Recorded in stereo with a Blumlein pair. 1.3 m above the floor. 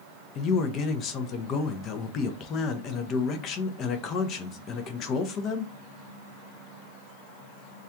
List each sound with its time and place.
0.3 s a man speaking: 30° left, 0.7 m